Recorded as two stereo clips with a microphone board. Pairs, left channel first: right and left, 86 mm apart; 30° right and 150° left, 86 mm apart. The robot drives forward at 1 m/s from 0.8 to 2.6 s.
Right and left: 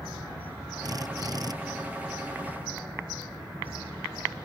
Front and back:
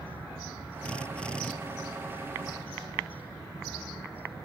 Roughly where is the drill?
Ahead left.